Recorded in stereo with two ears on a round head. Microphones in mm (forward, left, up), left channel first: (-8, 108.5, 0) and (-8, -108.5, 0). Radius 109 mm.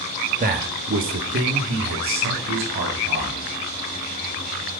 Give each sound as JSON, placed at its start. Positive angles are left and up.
{"t": 0.4, "sound": "a man speaking", "side_deg": -35, "distance_m": 0.9}